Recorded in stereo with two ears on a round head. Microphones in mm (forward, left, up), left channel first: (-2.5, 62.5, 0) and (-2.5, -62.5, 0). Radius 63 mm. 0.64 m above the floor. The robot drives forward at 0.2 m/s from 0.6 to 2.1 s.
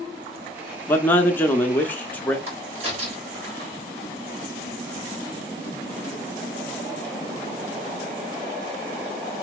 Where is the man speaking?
15° left (ahead or behind), 0.7 m; by 2.4 s 10° left (ahead or behind), 0.8 m.